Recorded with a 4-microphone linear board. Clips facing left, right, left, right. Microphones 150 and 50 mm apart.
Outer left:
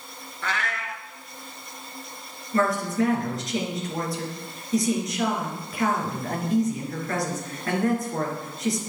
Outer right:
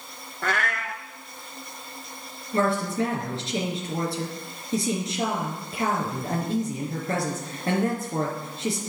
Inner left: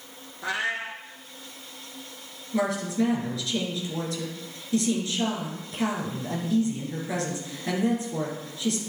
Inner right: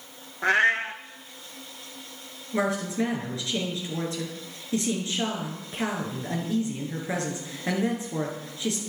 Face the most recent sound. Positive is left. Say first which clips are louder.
# outer left 1 dB, even
turn(degrees=-25)  # may be behind; listen again after turning